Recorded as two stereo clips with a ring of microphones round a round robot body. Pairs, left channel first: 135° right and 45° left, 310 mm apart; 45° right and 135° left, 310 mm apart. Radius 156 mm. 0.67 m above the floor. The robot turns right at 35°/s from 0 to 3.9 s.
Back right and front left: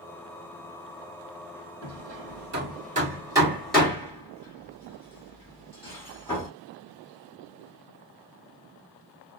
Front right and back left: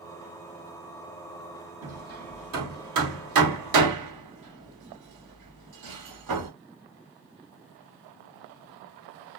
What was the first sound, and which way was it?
Hammering, 70° left.